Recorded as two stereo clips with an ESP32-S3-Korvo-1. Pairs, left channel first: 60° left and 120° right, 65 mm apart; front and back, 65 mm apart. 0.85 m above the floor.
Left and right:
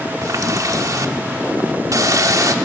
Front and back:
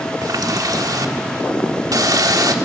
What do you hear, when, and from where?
0.2 s a running tap: 155° right, 1.3 m